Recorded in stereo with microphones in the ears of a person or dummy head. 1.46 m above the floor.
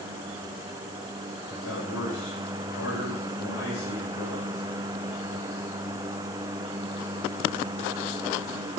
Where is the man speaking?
80° left, 6 m.